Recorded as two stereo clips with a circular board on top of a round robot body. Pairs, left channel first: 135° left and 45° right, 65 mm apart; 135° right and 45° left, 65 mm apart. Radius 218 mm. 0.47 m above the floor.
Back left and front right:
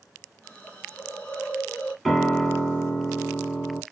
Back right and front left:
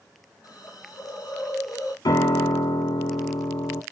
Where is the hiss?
160° right, 2.5 m.